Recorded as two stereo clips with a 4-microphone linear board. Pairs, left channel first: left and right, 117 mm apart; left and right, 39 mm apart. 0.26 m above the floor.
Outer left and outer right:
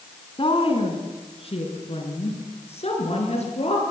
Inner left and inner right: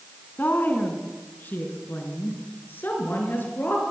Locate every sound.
0.4 s a woman speaking: 50° left (ahead or behind), 3 m; by 3.8 s 60° left (ahead or behind), 5.5 m